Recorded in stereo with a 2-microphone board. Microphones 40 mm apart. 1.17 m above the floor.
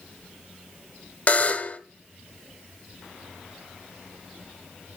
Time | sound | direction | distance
1.3 | a buzzer | 35° left (ahead or behind) | 1.1 m